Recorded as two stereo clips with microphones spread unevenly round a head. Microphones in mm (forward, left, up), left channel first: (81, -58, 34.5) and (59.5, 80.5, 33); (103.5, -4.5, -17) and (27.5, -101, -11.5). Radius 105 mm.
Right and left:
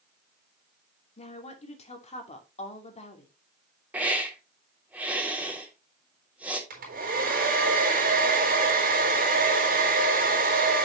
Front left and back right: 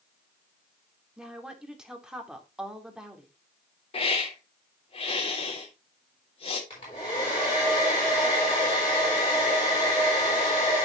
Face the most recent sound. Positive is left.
turn(degrees=115)